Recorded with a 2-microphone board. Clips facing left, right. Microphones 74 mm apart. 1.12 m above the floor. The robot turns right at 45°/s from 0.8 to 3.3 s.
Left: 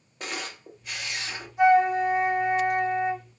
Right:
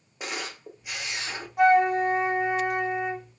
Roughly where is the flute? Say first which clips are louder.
Even; right.